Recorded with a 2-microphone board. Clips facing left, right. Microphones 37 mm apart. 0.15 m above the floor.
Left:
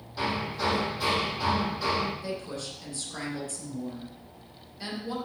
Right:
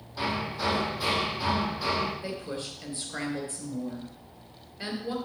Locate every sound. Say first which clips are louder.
0.2 s hammering: left 1 dB; centre (ahead or behind), 4 m
2.2 s a woman speaking: even; 25° right (ahead or behind), 3.5 m